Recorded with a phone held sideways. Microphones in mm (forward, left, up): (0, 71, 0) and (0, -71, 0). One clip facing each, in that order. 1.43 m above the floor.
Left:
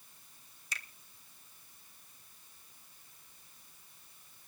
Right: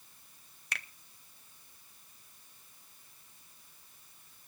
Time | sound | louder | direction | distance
0.7 | a finger snap | right 3 dB | 65° right (ahead or behind) | 0.8 m